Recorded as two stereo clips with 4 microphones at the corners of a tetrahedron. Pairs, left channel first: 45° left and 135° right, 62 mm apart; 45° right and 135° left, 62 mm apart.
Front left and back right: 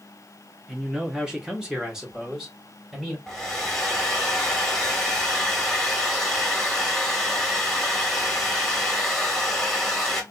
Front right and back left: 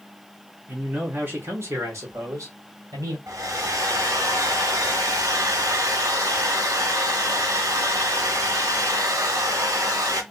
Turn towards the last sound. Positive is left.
turn(degrees=130)